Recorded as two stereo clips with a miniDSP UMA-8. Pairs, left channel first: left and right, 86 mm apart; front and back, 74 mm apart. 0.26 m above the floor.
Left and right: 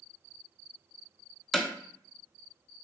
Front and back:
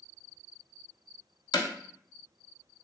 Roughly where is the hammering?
Ahead.